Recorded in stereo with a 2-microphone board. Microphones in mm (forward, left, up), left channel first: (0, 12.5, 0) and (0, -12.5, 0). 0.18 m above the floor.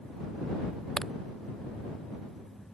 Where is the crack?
35° left (ahead or behind).